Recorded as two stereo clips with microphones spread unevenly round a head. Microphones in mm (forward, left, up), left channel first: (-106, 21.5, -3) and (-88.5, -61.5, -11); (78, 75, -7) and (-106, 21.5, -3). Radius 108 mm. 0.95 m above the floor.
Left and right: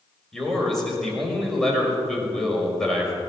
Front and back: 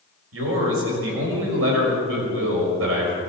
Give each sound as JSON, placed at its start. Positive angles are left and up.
{"t": 0.3, "sound": "a man speaking", "azimuth_deg": -175, "distance_m": 5.5}